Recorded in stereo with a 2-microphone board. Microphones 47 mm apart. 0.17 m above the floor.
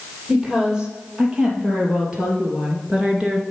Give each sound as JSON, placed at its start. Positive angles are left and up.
{"t": 0.3, "sound": "a woman speaking", "side_deg": -15, "distance_m": 4.5}